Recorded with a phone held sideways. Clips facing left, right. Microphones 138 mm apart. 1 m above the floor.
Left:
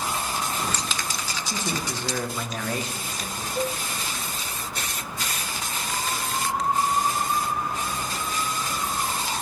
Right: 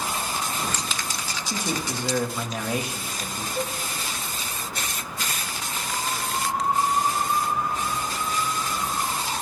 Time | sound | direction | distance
1.5 | a man speaking | 10° right (ahead or behind) | 0.8 m
3.5 | a cowbell | 5° right (ahead or behind) | 2.5 m